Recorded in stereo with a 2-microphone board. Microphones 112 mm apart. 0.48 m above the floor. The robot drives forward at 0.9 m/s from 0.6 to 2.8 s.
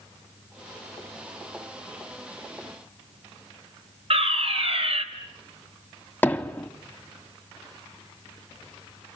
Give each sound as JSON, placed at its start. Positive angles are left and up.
{"t": 4.1, "sound": "a fire alarm", "side_deg": -65, "distance_m": 3.5}
{"t": 6.2, "sound": "hammering", "side_deg": 15, "distance_m": 0.9}